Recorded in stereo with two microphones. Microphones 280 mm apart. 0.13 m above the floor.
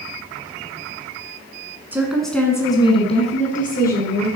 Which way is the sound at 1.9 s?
5° right (ahead or behind).